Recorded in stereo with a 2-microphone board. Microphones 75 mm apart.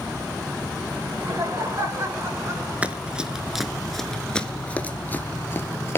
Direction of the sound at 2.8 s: 20° right (ahead or behind).